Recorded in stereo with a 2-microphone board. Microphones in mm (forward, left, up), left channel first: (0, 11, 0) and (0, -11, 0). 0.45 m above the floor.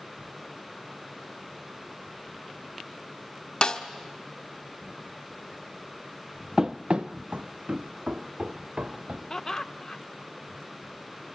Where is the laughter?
30° left (ahead or behind), 0.8 m.